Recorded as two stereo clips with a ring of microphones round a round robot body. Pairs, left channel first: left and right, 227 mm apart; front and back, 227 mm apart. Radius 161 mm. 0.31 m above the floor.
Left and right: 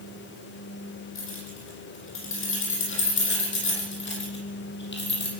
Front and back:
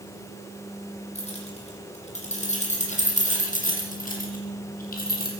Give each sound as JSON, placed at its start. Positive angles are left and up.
{"t": 1.1, "sound": "keys jangling", "azimuth_deg": 60, "distance_m": 9.0}